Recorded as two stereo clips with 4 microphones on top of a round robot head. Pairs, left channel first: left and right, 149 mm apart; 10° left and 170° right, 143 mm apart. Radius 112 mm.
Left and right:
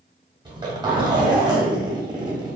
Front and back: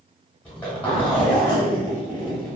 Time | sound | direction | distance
0.5 | a zipper | 65° right | 1.1 m